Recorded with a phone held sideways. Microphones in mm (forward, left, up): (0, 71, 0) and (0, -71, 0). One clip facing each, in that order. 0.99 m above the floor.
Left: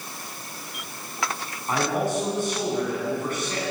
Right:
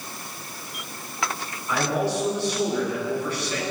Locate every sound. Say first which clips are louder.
1.7 s a man speaking: even; 45° left (ahead or behind), 9.5 m